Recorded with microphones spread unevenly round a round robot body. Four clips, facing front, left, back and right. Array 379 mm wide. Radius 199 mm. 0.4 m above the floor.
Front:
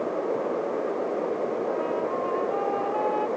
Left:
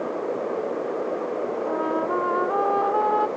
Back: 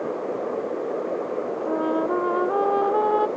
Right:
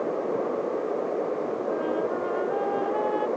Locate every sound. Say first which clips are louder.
1.7 s a trumpet: left 3 dB, back 4 dB; 170° left